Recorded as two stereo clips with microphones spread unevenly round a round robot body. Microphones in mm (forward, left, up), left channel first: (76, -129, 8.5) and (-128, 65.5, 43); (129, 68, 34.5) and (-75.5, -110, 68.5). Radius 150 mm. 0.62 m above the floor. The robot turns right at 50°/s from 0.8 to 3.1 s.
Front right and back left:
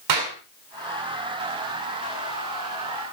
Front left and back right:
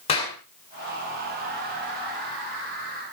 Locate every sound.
0.1 s a clap: 110° left, 7 m